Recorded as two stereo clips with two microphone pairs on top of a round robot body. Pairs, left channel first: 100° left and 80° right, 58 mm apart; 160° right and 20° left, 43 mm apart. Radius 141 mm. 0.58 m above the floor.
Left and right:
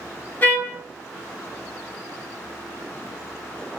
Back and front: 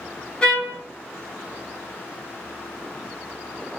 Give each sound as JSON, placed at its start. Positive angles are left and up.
{"t": 0.4, "sound": "a trumpet", "azimuth_deg": 135, "distance_m": 1.7}